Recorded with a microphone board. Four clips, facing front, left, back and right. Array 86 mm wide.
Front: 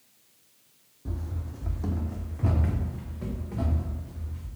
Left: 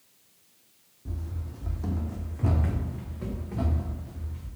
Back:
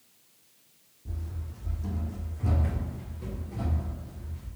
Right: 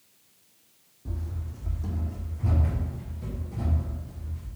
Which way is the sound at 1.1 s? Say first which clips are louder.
Right 1 dB, front 5 dB; 10° right.